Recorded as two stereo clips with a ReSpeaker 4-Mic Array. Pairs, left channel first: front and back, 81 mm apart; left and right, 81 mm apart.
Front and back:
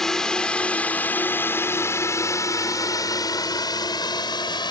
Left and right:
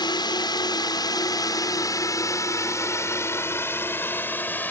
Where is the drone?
85° left; by 4.7 s 20° left.